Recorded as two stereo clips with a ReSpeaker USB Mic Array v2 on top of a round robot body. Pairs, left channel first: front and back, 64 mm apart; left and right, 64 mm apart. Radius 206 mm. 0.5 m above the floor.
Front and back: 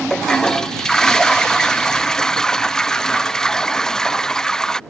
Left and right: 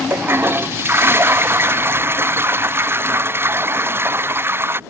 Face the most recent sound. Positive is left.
turn(degrees=-75)